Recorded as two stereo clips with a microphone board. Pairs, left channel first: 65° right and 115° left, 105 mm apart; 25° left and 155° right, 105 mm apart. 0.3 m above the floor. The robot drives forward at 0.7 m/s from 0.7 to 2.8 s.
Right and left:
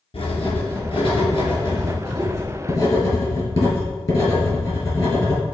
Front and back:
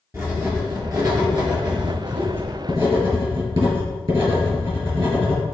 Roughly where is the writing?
Right.